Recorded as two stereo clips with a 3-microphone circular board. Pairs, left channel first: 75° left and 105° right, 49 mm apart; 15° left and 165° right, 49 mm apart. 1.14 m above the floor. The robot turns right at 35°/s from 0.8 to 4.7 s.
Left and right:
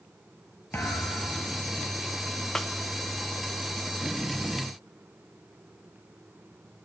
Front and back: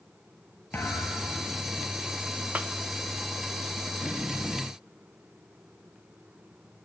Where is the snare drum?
155° left, 0.6 m; by 2.7 s 160° left, 0.6 m.